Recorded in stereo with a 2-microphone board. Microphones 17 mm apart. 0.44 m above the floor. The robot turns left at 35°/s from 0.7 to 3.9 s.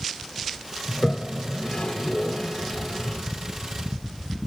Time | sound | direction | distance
0.9 | a toilet flushing | 65° left (ahead or behind) | 0.6 m